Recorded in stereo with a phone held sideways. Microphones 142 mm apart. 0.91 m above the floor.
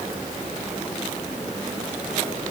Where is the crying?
I don't hear crying.